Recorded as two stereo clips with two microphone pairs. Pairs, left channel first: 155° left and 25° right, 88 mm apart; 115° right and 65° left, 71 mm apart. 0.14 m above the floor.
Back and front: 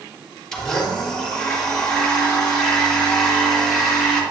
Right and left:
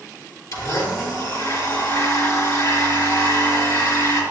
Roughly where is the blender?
Behind right.